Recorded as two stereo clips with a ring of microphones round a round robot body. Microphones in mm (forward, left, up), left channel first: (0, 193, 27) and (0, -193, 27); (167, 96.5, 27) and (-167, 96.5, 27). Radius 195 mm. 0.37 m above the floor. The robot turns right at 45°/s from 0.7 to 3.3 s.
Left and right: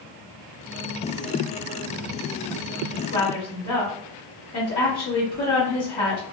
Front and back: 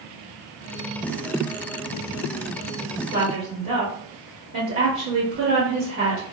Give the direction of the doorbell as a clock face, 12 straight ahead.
I don't hear a doorbell.